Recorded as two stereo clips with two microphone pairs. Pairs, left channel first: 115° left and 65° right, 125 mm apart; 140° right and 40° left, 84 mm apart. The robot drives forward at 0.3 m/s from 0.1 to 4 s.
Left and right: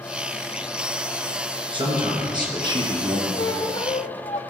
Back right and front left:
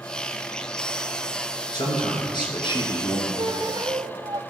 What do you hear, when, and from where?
1.7 s a man speaking: 110° right, 2.5 m; by 3.3 s 120° right, 3 m
3.4 s a squeak: 70° left, 0.6 m; by 4.4 s 85° left, 0.6 m